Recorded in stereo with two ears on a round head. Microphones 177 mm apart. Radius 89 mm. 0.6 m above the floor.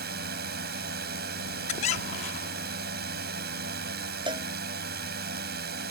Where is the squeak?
35° left (ahead or behind).